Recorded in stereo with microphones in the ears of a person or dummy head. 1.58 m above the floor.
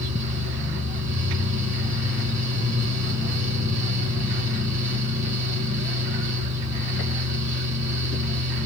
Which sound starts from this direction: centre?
A fan, at 0.0 s.